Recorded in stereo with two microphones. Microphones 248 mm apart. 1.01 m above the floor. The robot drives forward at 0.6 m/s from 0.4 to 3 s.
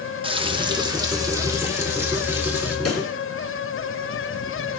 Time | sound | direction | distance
0.2 | frying | 20° right (ahead or behind) | 1.0 m
2.9 | a pop | 75° left (ahead or behind) | 3 m